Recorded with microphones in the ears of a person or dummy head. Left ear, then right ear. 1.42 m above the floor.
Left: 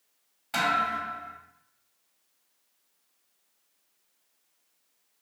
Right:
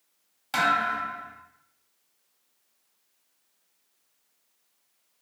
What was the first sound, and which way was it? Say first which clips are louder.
A thud: right 2 dB; 25° right (ahead or behind).